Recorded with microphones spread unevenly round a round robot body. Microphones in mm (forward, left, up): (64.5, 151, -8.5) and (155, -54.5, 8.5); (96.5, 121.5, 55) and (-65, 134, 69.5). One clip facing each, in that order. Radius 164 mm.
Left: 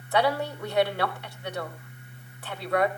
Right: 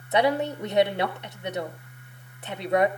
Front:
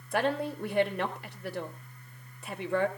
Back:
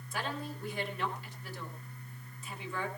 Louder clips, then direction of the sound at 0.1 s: Right 2 dB, front 10 dB; 5° left.